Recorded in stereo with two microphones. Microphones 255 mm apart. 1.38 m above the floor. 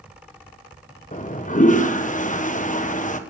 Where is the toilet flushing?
30° left (ahead or behind), 1.0 m.